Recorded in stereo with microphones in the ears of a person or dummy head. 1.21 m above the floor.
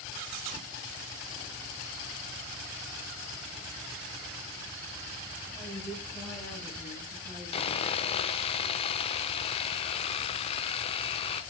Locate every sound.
5.5 s a woman speaking: 15° left (ahead or behind), 9 m
7.5 s sawing: 30° left (ahead or behind), 0.7 m